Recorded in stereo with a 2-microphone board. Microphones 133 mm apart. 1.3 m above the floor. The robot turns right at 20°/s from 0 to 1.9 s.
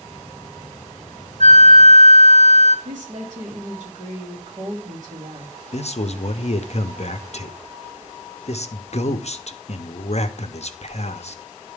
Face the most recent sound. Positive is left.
turn(degrees=55)  # may be behind; listen again after turning